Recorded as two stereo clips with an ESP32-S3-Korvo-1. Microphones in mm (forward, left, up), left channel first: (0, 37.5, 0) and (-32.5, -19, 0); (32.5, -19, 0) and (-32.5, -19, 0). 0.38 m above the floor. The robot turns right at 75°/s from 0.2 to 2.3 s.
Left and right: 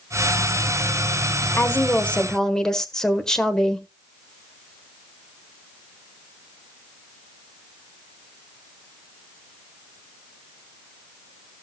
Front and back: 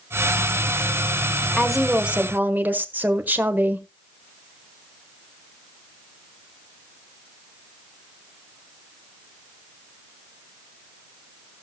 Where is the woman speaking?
80° left, 1.3 m; by 3.9 s 135° left, 1.3 m.